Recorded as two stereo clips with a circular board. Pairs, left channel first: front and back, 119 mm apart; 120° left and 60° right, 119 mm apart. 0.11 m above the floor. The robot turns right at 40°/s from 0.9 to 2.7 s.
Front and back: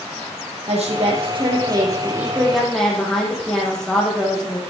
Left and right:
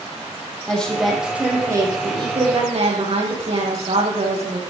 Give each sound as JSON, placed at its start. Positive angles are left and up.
{"t": 0.7, "sound": "a woman speaking", "azimuth_deg": -155, "distance_m": 5.5}